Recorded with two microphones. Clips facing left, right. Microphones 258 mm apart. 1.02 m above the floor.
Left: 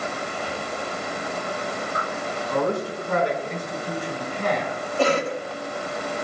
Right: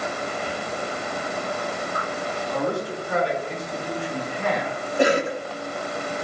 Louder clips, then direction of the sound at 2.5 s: Left 2 dB; 75° left (ahead or behind).